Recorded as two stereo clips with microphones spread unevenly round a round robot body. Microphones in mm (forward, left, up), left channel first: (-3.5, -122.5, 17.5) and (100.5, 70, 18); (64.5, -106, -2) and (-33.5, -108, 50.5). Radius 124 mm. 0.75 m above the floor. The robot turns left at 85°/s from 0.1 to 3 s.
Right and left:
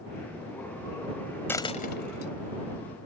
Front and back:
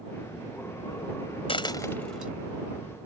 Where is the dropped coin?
35° right; by 2.3 s 105° right.